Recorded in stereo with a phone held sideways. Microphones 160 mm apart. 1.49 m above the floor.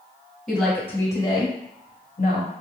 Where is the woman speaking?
Centre (ahead or behind), 1.6 m; by 2.5 s 60° left (ahead or behind), 1.4 m.